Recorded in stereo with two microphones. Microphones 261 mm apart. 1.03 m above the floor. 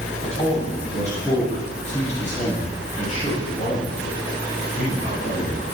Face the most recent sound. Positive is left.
turn(degrees=35)  # may be behind; listen again after turning